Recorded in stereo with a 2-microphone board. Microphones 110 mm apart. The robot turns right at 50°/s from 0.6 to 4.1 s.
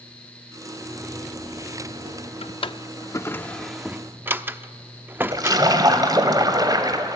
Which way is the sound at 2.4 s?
65° left (ahead or behind).